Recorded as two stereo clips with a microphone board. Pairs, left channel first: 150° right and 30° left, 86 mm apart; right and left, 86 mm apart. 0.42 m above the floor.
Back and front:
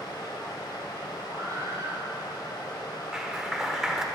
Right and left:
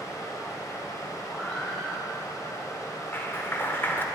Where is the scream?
10° right, 3 m.